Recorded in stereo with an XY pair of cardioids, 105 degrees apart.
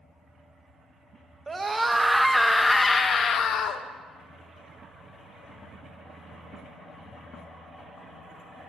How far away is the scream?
About 1.0 m.